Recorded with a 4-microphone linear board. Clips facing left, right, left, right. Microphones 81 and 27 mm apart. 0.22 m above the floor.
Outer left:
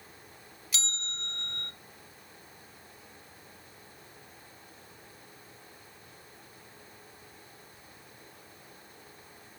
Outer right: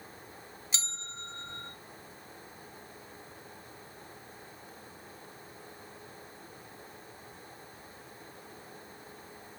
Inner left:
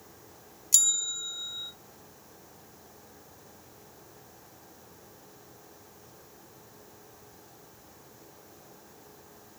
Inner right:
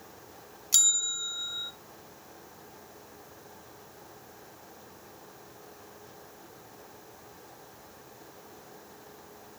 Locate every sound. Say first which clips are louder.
0.7 s a bell: outer left 4 dB, inner right 1 dB; 30° right (ahead or behind), 0.6 m